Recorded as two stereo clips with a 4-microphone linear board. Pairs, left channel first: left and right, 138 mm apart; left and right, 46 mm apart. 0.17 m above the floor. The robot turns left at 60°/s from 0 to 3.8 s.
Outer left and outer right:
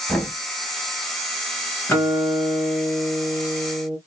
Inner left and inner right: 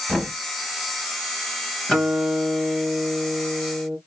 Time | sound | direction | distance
0.1 | knocking | 10° left (ahead or behind) | 2.5 m
1.9 | a guitar | 20° left | 2.5 m